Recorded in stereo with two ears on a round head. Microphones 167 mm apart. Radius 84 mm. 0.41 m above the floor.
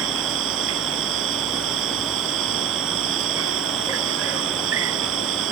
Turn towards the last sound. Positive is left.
turn(degrees=-75)  # may be behind; listen again after turning